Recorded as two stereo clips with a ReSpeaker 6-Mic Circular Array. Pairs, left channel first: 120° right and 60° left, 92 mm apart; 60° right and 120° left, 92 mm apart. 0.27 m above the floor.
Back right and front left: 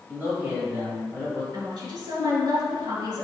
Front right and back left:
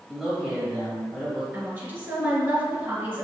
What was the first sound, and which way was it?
A man speaking, 45° left.